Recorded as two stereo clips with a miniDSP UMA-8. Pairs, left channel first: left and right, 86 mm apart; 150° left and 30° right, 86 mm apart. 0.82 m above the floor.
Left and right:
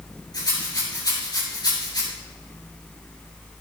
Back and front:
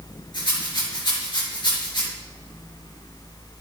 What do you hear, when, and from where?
0.3 s a rattle: 125° left, 5.5 m